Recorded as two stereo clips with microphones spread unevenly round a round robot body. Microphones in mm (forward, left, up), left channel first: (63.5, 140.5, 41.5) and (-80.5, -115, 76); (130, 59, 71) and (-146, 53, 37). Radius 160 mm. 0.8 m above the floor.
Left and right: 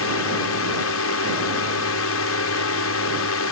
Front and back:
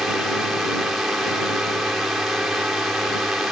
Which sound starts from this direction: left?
A drone, at 0.0 s.